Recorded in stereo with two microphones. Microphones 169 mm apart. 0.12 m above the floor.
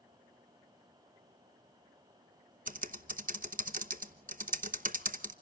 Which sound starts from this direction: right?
Typing on a keyboard, at 2.7 s.